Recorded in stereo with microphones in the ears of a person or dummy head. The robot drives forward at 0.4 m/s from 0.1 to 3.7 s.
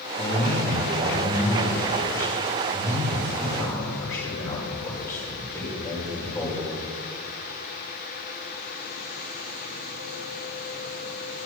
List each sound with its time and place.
0.2 s a man speaking: 15° left (ahead or behind), 3 m; by 6.7 s 10° left (ahead or behind), 4.5 m